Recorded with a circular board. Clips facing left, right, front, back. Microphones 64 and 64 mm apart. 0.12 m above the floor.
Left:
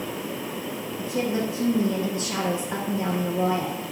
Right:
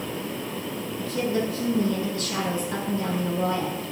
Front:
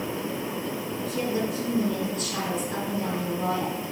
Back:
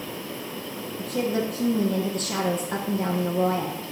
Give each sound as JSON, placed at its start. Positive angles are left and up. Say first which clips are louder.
{"t": 1.0, "sound": "a woman speaking", "louder": "even, back 3 dB", "azimuth_deg": 150, "distance_m": 1.8}